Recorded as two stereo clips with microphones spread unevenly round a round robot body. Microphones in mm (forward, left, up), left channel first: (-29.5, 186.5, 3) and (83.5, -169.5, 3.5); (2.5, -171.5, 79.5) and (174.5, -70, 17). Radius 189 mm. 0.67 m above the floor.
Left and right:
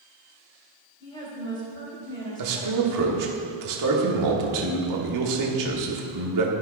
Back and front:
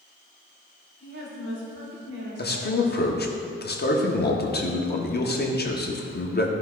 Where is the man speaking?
105° right, 1.3 m.